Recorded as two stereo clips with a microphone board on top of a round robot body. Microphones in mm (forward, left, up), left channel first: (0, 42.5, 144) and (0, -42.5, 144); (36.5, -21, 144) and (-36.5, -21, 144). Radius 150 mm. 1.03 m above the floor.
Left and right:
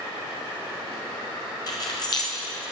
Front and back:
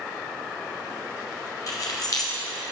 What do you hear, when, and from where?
1.7 s keys jangling: 45° left, 1.2 m